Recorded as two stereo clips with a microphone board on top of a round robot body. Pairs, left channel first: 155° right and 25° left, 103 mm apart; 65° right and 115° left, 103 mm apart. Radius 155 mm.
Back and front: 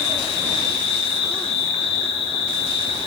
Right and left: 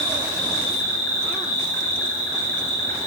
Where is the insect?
135° right, 4.5 m.